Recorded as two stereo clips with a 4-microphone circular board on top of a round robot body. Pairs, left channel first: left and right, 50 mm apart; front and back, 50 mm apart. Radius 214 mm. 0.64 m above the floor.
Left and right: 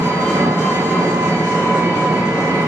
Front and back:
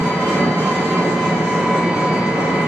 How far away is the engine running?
About 1.8 m.